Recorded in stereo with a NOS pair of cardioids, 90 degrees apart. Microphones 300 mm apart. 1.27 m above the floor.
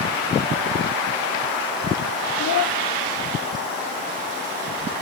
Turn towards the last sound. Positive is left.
turn(degrees=55)